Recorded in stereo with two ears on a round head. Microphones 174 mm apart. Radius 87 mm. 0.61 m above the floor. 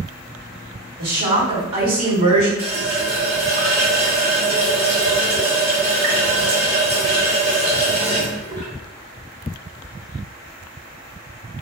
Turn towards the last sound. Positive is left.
turn(degrees=-55)  # may be behind; listen again after turning